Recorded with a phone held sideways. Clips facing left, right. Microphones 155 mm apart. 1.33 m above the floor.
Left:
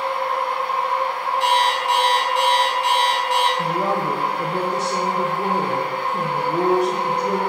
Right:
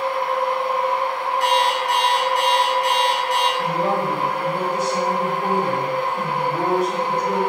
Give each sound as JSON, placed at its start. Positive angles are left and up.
{"t": 0.0, "sound": "a machine running", "side_deg": -45, "distance_m": 1.2}
{"t": 1.4, "sound": "an alarm clock", "side_deg": 25, "distance_m": 0.8}
{"t": 3.6, "sound": "a woman speaking", "side_deg": 80, "distance_m": 0.6}